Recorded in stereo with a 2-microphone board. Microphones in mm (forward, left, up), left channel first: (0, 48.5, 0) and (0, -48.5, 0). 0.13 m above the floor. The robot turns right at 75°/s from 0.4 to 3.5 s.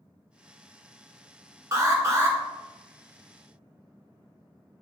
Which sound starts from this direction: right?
An alarm, at 1.7 s.